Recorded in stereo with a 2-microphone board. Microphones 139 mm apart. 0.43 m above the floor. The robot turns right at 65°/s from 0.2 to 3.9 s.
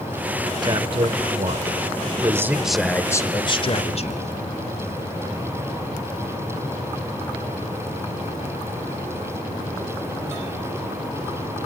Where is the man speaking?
135° right, 1.1 m; by 4.2 s 75° left, 1.1 m.